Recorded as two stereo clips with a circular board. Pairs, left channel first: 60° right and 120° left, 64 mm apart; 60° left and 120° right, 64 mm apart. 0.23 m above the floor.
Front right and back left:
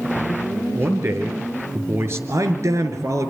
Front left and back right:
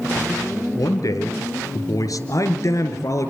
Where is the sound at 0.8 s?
75° left, 4 m.